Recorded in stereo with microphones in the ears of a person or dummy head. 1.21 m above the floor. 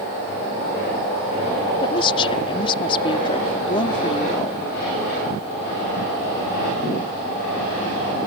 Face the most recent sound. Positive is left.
turn(degrees=30)  # may be behind; listen again after turning